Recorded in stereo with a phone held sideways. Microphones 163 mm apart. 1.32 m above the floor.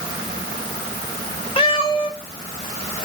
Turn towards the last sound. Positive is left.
turn(degrees=35)  # may be behind; listen again after turning